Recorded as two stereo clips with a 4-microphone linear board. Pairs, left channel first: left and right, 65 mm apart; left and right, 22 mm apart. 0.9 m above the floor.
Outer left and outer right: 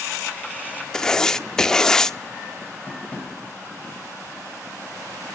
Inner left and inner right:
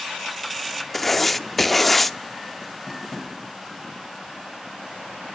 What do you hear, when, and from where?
0.9 s writing: 10° left (ahead or behind), 0.5 m
2.9 s tapping: 25° left (ahead or behind), 3.5 m